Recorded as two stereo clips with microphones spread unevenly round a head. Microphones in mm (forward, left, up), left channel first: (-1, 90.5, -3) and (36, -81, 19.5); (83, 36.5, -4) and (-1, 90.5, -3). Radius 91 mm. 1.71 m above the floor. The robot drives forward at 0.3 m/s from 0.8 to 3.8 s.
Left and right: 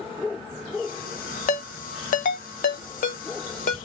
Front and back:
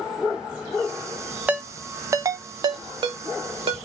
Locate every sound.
1.5 s a ringtone: 85° left, 0.6 m; by 3.8 s 155° left, 0.9 m